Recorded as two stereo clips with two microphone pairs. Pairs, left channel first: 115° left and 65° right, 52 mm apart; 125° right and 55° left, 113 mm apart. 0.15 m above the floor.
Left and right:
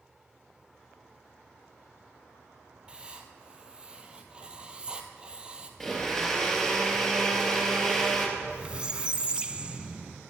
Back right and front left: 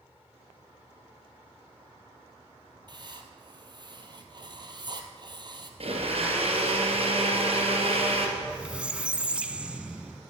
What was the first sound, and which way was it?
Writing, 10° left.